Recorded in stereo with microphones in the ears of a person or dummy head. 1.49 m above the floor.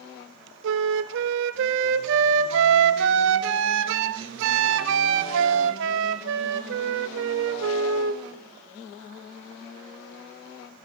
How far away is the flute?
About 0.6 m.